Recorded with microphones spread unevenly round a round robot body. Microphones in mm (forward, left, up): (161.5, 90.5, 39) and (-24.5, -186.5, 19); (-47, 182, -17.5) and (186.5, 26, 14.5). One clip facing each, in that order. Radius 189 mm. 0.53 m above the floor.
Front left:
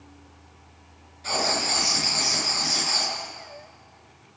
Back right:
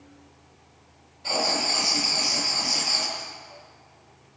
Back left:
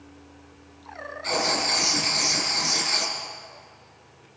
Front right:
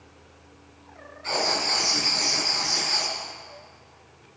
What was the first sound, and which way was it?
Writing, 105° left.